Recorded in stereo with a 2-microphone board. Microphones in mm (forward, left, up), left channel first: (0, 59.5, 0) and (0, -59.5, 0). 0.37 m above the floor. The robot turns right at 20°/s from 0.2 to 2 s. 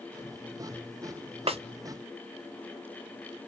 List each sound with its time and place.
1.5 s a snare drum: 55° right (ahead or behind), 0.6 m